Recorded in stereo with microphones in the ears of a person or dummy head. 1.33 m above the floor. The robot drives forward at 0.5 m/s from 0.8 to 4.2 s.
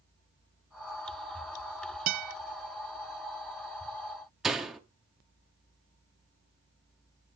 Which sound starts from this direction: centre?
A door slam, at 4.4 s.